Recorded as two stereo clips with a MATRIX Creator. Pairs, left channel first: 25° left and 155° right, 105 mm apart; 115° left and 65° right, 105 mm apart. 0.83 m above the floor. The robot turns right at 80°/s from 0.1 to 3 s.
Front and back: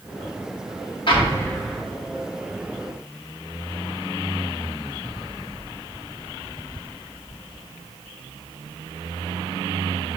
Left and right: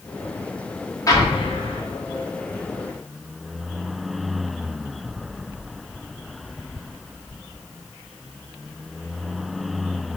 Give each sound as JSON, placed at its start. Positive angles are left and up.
{"t": 1.1, "sound": "an explosion", "azimuth_deg": 55, "distance_m": 1.1}